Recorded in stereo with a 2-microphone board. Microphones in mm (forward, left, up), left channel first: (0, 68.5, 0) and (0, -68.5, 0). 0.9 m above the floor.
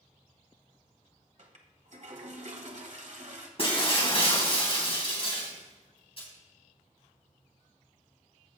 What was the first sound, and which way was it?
A toilet flushing, 60° right (ahead or behind).